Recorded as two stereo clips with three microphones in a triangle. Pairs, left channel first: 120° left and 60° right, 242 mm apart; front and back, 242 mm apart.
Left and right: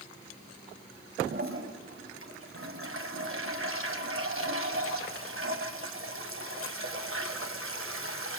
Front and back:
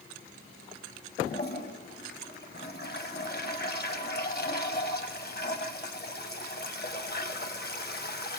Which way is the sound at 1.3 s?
45° right.